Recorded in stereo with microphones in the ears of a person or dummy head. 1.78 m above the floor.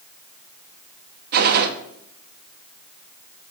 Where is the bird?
No bird in this recording.